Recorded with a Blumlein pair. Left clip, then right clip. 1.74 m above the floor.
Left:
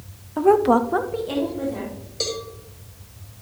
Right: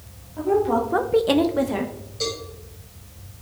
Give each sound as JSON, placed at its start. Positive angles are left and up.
{"t": 0.4, "sound": "a woman speaking", "azimuth_deg": 55, "distance_m": 1.0}
{"t": 2.2, "sound": "a cowbell", "azimuth_deg": 70, "distance_m": 2.5}